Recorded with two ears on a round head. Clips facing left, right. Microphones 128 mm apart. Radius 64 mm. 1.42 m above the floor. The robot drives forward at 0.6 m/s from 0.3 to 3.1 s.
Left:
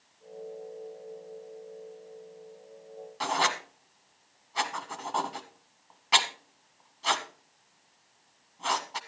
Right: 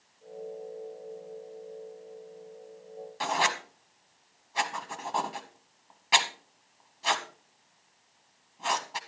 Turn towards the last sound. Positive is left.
turn(degrees=-5)  # may be behind; listen again after turning